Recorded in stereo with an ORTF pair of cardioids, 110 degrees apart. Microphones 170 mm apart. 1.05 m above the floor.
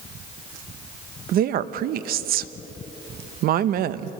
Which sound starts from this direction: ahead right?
A woman speaking, at 1.3 s.